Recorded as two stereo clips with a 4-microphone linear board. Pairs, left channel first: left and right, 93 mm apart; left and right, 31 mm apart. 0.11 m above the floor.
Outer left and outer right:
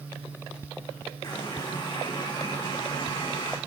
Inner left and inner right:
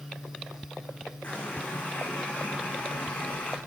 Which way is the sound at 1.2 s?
50° left (ahead or behind).